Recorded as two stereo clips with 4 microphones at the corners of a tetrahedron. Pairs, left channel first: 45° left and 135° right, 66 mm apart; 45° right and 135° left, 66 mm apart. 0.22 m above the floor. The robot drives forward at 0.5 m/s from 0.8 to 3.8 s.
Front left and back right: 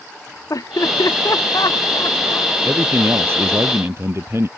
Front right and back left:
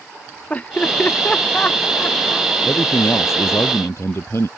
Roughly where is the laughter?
Ahead.